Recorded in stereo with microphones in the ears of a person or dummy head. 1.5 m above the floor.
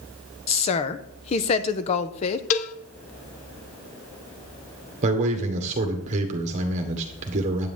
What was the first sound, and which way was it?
A woman speaking, 35° left (ahead or behind).